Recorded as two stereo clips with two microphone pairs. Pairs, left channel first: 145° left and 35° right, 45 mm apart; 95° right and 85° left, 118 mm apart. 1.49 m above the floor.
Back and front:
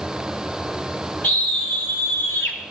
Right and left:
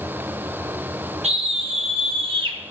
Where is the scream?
100° left, 1.2 m; by 2.6 s 135° left, 1.5 m.